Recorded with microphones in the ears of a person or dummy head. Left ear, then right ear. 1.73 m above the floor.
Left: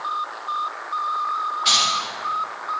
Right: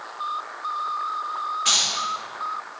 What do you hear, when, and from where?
1.6 s keys jangling: 25° right (ahead or behind), 2.5 m